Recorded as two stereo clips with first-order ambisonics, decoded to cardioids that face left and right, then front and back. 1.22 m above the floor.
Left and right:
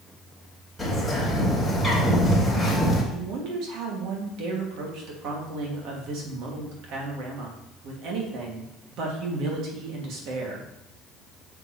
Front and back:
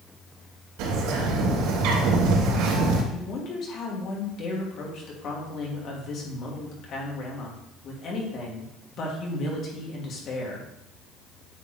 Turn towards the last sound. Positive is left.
turn(degrees=-55)